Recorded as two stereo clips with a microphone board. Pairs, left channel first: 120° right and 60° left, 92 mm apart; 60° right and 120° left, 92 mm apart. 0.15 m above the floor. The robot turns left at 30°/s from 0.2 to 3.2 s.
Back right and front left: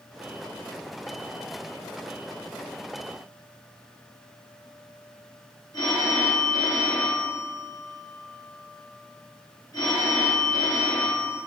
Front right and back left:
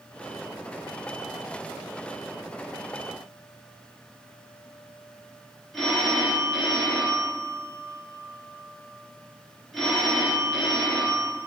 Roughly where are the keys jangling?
No keys jangling in this recording.